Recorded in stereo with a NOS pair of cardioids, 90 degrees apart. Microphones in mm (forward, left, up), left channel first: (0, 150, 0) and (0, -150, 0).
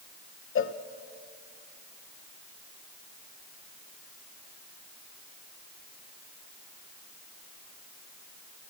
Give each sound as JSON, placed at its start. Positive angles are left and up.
{"t": 0.6, "sound": "a cowbell", "azimuth_deg": 45, "distance_m": 1.0}